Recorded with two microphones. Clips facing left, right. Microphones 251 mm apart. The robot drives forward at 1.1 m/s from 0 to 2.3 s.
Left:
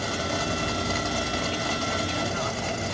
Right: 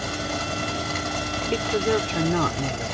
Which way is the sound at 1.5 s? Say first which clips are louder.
Right 8 dB; 75° right (ahead or behind).